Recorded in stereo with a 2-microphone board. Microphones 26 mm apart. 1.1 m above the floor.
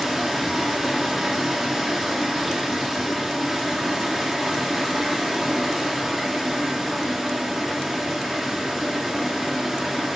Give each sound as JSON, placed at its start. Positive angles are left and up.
{"t": 0.0, "sound": "running water", "side_deg": -10, "distance_m": 2.5}